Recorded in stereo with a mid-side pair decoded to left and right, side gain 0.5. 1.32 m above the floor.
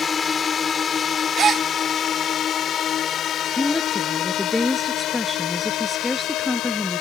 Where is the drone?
35° left; by 7.0 s 75° left.